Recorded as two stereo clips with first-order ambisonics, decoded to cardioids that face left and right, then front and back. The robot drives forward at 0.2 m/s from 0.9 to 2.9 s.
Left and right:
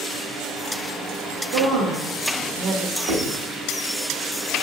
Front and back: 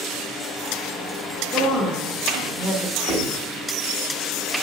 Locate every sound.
1.5 s a woman speaking: 90° right, 1.1 m; by 3.0 s 105° right, 1.2 m
3.1 s writing: 120° right, 1.5 m